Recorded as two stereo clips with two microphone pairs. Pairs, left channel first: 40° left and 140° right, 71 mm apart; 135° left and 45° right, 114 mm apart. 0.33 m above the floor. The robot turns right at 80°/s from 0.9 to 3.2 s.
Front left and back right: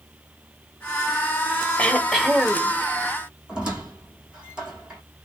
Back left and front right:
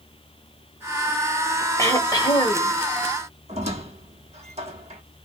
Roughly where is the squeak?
Ahead right.